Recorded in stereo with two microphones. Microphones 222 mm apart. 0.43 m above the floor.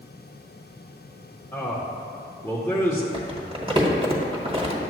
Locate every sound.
1.5 s a man speaking: 10° left (ahead or behind), 0.9 m
3.1 s crumpling: 25° right (ahead or behind), 1.4 m